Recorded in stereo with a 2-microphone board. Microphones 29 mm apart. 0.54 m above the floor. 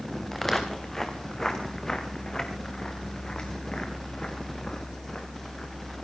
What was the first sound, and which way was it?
Footsteps, 10° left (ahead or behind).